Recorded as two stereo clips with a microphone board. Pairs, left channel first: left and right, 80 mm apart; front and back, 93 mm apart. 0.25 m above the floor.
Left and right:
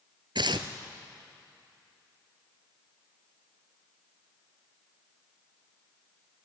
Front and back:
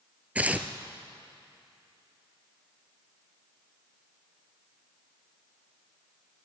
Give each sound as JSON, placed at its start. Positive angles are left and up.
{"t": 0.3, "sound": "tearing paper", "azimuth_deg": -105, "distance_m": 1.1}